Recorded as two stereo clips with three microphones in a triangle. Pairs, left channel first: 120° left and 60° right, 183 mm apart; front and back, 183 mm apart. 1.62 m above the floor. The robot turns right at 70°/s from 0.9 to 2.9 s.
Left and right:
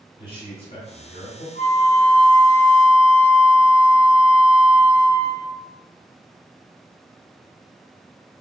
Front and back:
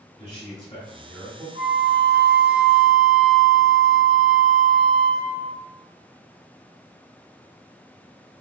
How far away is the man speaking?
About 1.3 m.